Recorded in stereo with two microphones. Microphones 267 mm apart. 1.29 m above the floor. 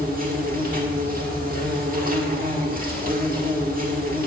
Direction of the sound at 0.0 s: 30° right (ahead or behind).